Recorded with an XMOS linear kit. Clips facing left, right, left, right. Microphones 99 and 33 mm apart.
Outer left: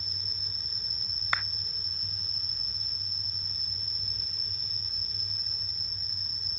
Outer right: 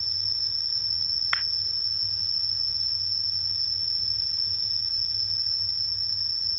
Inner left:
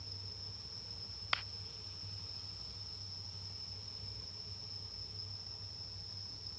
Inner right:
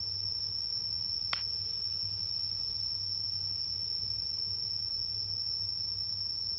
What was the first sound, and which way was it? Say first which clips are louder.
An insect: even, inner right 10 dB; 60° left (ahead or behind).